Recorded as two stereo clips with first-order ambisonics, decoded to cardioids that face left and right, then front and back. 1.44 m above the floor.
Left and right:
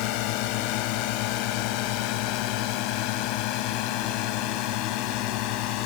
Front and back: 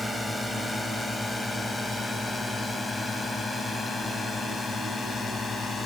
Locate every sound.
0.0 s a drone: 85° left; by 5.9 s 75° left